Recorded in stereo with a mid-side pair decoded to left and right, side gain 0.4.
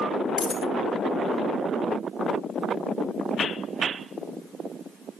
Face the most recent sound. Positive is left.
turn(degrees=40)